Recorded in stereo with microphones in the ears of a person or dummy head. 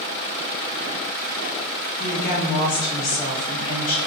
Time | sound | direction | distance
2.0 | a woman speaking | 30° left (ahead or behind) | 1.4 m